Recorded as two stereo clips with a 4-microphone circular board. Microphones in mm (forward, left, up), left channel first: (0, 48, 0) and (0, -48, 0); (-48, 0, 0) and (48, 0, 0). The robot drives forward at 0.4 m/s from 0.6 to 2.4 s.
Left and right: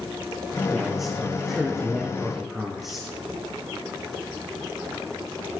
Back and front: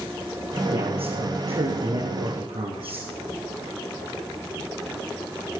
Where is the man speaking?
5° right, 8.5 m.